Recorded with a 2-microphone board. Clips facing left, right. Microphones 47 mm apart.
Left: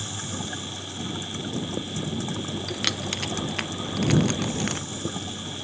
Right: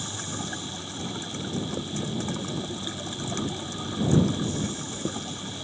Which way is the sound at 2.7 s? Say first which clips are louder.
Left 5 dB; 85° left.